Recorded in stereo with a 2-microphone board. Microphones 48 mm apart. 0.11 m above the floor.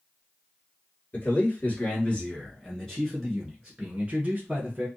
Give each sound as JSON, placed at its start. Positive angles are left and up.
{"t": 1.1, "sound": "a man speaking", "side_deg": 40, "distance_m": 1.7}